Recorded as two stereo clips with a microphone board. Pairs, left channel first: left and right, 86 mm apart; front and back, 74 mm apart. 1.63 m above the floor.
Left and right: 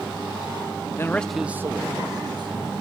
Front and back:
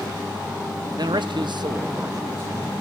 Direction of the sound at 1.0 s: 150° left.